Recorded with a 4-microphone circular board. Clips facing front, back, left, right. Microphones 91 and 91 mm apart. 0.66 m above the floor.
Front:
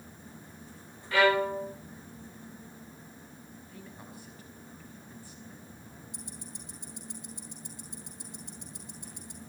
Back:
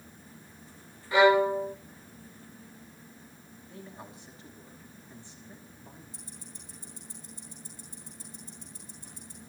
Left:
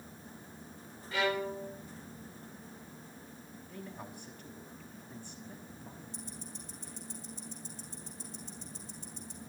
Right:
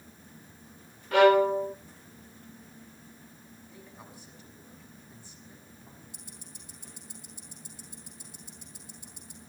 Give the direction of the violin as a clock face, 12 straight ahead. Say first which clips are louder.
Back 4 dB, right 13 dB; 4 o'clock.